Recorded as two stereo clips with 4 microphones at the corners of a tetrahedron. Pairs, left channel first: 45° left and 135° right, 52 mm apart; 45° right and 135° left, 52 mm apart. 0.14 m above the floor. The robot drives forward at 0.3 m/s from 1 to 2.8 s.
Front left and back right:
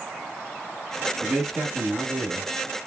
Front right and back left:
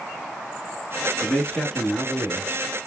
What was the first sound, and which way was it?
A man speaking, 145° right.